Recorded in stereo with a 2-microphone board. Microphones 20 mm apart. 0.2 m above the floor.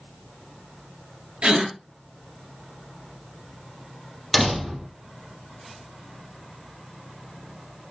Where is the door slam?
15° right (ahead or behind), 4 m.